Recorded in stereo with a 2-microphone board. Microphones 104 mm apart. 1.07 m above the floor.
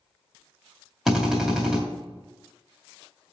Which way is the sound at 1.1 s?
5° right (ahead or behind).